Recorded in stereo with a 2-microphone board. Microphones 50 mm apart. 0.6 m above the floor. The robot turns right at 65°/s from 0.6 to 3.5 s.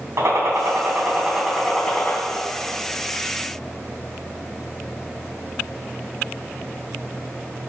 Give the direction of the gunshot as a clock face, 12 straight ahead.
2 o'clock.